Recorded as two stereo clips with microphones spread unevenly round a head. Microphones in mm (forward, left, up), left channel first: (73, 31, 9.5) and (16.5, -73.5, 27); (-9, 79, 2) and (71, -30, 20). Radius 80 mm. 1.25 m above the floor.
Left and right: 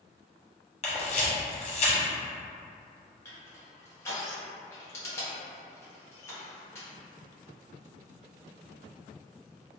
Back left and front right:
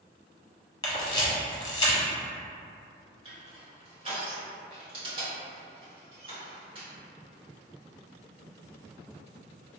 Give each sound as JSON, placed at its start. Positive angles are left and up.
{"t": 0.8, "sound": "a camera shutter", "azimuth_deg": 75, "distance_m": 1.0}
{"t": 3.2, "sound": "crushing", "azimuth_deg": 0, "distance_m": 1.3}